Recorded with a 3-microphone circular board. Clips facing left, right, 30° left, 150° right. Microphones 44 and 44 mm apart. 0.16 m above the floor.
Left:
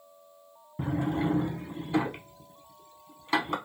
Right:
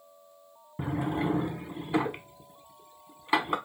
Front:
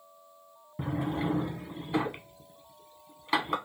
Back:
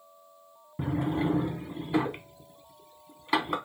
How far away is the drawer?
About 0.6 m.